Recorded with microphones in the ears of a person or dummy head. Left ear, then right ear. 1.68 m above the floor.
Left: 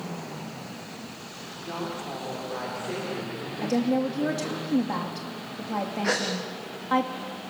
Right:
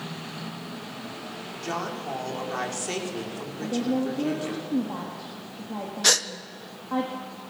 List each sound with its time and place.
1.6 s a woman speaking: 70° right (ahead or behind), 5.5 m
3.6 s a woman speaking: 75° left (ahead or behind), 2.5 m
6.0 s a gasp: 80° right, 1.4 m